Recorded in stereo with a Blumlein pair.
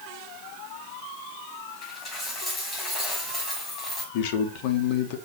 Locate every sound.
1.8 s a dropped coin: 15° left, 4 m
4.1 s a man speaking: 45° left, 1.4 m